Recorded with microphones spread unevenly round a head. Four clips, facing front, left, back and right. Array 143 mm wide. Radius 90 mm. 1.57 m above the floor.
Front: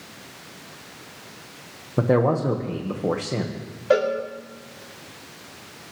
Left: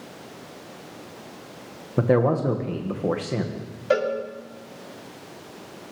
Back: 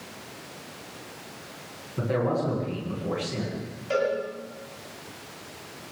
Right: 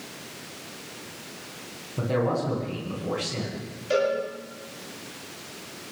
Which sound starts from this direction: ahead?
A cowbell, at 3.9 s.